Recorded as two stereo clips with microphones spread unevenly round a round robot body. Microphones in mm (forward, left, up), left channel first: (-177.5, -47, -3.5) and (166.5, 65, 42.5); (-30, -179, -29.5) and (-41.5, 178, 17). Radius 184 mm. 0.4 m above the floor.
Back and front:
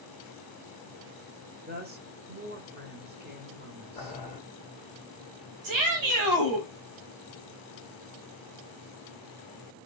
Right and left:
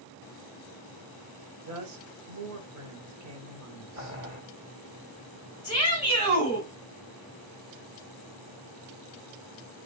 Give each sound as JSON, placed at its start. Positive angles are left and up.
{"t": 1.6, "sound": "a woman speaking", "azimuth_deg": 75, "distance_m": 1.2}
{"t": 4.0, "sound": "boiling", "azimuth_deg": 140, "distance_m": 1.9}
{"t": 5.6, "sound": "a shout", "azimuth_deg": -15, "distance_m": 2.5}